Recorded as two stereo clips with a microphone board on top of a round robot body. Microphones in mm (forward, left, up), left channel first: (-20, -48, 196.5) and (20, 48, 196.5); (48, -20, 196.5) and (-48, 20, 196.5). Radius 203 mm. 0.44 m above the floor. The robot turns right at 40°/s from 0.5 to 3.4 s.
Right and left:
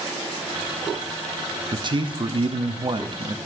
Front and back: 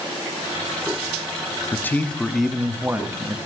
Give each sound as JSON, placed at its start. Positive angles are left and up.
{"t": 1.7, "sound": "a man speaking", "azimuth_deg": 40, "distance_m": 0.9}